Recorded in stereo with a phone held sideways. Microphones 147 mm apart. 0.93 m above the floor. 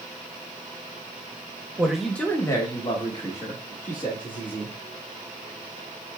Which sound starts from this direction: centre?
A man speaking, at 1.8 s.